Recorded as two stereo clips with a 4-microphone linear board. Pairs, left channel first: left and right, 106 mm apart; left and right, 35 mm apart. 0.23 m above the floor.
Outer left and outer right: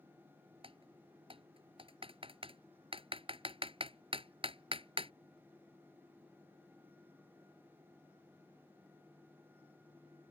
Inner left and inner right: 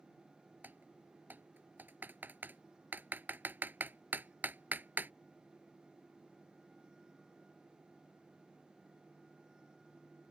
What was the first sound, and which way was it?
Typing on a keyboard, 60° right (ahead or behind).